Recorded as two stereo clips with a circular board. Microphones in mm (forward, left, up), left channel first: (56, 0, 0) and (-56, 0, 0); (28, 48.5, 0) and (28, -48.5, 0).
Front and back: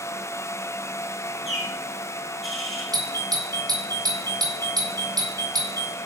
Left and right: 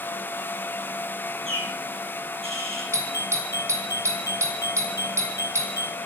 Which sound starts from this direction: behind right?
A doorbell, at 2.9 s.